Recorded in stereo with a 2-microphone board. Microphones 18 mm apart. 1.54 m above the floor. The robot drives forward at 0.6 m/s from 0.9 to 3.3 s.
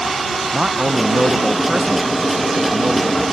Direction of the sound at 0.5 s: 60° right (ahead or behind).